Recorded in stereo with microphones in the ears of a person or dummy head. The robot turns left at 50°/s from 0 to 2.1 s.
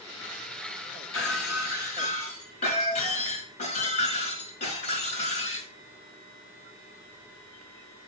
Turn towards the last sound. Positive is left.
turn(degrees=40)